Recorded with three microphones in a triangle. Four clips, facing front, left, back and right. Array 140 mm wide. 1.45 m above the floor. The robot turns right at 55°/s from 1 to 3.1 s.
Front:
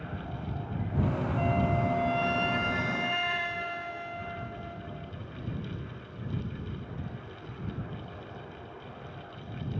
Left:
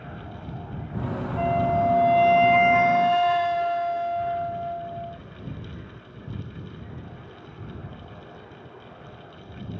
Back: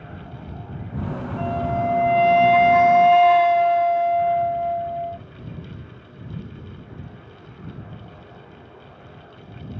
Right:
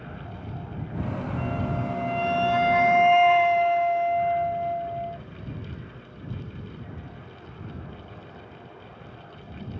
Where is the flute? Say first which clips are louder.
Left 11 dB, back 6 dB; 95° left; by 5.2 s 170° right.